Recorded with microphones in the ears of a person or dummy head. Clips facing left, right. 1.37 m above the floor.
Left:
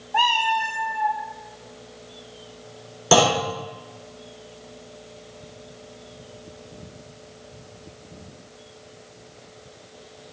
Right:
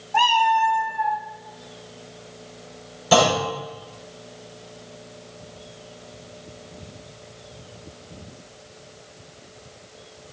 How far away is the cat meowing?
About 0.6 m.